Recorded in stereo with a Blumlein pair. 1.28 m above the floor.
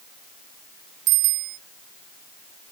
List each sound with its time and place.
1.1 s a bicycle bell: 40° right